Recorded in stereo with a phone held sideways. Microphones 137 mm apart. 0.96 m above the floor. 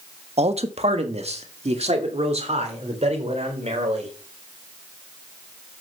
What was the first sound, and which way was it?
A man speaking, 50° right (ahead or behind).